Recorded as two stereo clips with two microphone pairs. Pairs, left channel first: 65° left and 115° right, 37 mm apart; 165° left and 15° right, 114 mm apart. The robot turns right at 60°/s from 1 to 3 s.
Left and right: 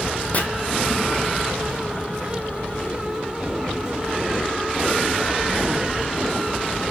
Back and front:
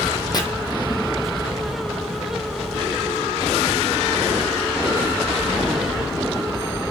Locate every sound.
0.3 s chopping: 110° left, 1.0 m